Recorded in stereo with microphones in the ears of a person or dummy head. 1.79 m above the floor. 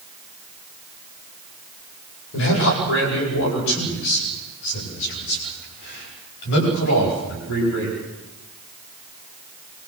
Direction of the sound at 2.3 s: 65° left (ahead or behind).